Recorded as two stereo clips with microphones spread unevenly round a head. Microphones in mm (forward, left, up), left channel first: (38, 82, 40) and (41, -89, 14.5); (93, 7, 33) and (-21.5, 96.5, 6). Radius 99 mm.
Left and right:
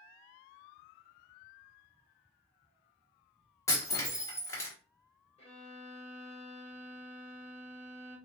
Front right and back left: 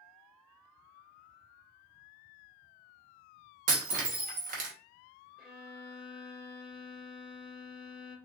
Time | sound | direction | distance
3.7 | breaking glass | 150° left | 1.0 m
5.4 | a violin | 50° left | 2.5 m